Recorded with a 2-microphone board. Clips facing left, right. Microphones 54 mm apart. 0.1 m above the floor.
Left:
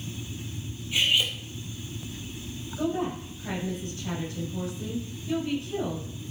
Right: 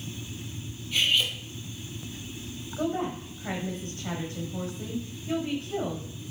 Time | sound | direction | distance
0.9 | cutlery clinking | 15° left (ahead or behind) | 1.9 m
2.8 | a woman speaking | 35° right (ahead or behind) | 6.5 m